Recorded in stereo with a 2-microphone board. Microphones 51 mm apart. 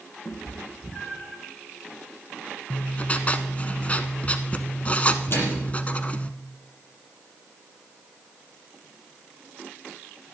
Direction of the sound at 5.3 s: 45° left (ahead or behind).